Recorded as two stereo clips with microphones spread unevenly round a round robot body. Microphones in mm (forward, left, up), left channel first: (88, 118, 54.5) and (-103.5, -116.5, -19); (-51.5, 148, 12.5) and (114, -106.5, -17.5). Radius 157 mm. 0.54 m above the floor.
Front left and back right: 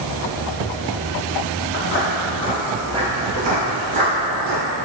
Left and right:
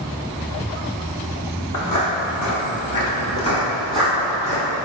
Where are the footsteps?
95° left, 1.4 m; by 4.6 s 140° right, 1.6 m.